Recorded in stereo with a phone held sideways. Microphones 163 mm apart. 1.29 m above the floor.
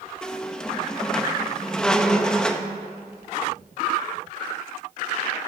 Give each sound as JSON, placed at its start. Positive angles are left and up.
{"t": 0.2, "sound": "a squeak", "side_deg": 5, "distance_m": 0.6}